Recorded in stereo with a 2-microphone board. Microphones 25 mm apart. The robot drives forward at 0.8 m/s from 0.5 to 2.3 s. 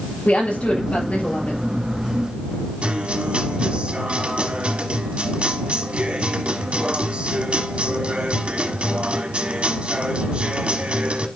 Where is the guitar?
55° right (ahead or behind), 1.2 m.